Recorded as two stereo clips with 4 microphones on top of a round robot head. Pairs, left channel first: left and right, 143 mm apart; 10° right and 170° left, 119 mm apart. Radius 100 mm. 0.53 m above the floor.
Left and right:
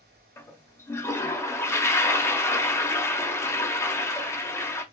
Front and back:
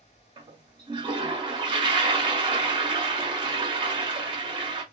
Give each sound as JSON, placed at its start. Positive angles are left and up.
{"t": 0.4, "sound": "a toilet flushing", "azimuth_deg": 155, "distance_m": 0.8}